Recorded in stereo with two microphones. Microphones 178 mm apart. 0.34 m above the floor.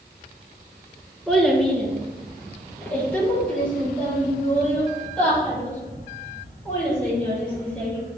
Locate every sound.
1.3 s a child speaking: centre (ahead or behind), 2 m; by 8.0 s 10° left (ahead or behind), 7.5 m